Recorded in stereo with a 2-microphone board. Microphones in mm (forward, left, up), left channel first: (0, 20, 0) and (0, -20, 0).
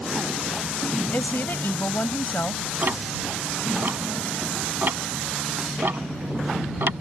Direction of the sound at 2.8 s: 60° right (ahead or behind).